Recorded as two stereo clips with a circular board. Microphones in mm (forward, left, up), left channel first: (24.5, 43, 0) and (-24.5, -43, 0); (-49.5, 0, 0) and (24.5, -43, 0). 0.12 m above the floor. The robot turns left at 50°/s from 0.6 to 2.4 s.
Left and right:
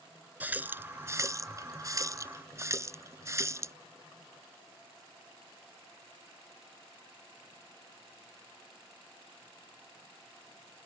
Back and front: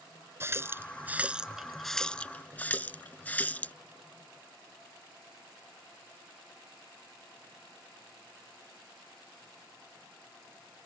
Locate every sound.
0.4 s a running tap: 60° right; by 3.8 s 150° right